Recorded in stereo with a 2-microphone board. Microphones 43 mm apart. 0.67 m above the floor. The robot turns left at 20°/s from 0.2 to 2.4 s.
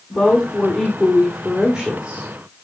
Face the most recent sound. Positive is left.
turn(degrees=-30)